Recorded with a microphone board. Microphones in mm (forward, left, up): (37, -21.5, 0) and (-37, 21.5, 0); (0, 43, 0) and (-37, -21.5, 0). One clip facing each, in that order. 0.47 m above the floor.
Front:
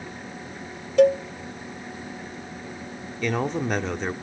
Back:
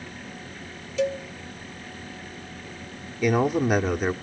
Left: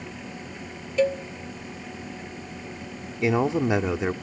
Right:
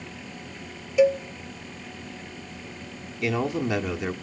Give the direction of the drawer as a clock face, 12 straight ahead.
No drawer in this recording.